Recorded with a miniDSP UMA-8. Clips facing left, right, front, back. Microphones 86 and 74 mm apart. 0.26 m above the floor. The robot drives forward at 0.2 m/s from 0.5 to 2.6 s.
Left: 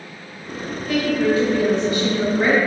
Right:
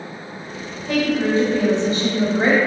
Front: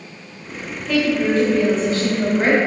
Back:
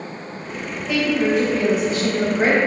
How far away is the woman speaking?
About 1.3 m.